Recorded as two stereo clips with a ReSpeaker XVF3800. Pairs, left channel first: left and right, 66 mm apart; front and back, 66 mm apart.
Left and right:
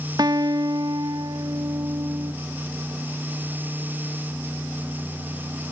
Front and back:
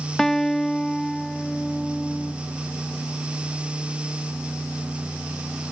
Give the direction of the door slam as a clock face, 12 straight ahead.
No door slam in this recording.